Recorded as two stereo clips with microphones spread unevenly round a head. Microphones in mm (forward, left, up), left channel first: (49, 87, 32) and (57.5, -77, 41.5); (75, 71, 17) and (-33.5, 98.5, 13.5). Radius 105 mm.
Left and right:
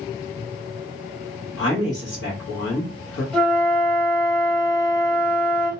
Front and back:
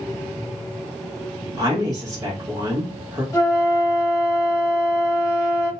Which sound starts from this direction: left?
A woman speaking, at 1.6 s.